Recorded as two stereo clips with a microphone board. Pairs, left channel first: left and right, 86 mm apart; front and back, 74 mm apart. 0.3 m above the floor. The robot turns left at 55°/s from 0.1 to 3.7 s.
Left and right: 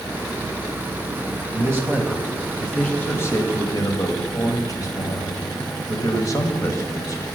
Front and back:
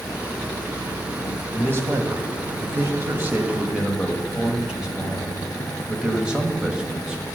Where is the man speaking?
130° right, 1.4 m; by 7.2 s 110° left, 1.4 m.